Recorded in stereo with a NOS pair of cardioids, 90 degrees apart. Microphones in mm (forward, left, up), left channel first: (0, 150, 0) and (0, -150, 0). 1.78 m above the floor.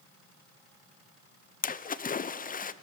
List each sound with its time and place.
1.6 s a splash: 30° left, 0.9 m